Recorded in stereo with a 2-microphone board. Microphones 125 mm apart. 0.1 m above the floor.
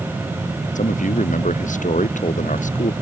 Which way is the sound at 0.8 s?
85° left.